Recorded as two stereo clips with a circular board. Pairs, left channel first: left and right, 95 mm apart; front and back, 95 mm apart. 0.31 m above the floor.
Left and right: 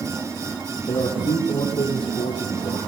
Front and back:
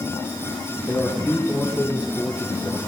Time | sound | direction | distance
0.9 | a man speaking | 70° left | 6.5 m